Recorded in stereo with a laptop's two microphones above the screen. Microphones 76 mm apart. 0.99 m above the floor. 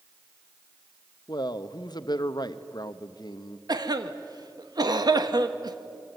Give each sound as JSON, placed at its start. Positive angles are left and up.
{"t": 1.3, "sound": "a man speaking", "side_deg": 65, "distance_m": 1.1}
{"t": 3.7, "sound": "a cough", "side_deg": -60, "distance_m": 1.4}